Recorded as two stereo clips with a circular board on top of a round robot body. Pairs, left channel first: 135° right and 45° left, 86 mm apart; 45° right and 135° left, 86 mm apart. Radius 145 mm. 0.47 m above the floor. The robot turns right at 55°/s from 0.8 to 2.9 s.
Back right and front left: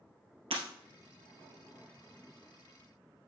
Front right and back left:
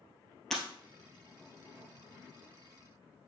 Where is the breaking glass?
40° left, 2 m.